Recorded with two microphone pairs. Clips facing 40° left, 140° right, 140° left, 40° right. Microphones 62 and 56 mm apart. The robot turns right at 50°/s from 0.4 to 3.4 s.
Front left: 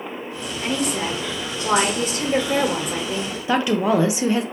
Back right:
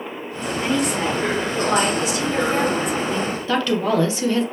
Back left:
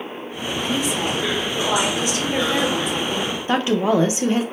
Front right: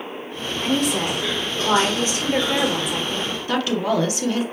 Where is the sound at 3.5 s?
95° left, 0.8 m.